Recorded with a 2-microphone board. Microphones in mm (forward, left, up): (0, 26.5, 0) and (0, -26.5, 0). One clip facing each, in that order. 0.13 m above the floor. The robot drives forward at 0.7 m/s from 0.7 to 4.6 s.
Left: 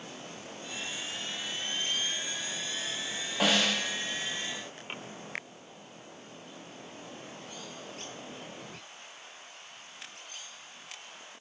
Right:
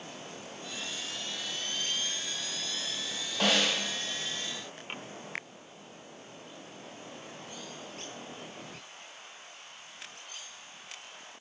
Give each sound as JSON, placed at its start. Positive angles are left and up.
{"t": 3.4, "sound": "a snare drum", "side_deg": 10, "distance_m": 5.5}